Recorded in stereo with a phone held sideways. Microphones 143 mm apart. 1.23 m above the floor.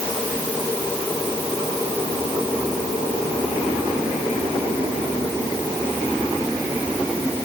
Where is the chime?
No chime in this recording.